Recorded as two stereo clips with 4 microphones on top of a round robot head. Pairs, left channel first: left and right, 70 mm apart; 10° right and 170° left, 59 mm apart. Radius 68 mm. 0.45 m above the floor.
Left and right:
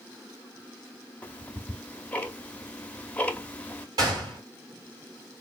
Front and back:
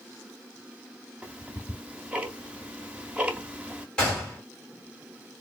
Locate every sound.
1.2 s ticking: 130° left, 0.8 m
4.0 s a gunshot: 90° right, 2 m